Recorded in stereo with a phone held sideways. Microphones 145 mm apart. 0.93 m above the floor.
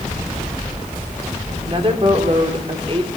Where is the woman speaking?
40° right (ahead or behind), 3 m.